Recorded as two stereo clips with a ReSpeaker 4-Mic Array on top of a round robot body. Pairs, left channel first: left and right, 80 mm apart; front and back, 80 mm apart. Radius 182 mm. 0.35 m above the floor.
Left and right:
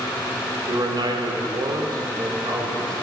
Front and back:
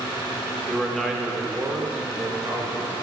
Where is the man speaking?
75° right, 1.4 m; by 2.9 s 135° right, 1.8 m.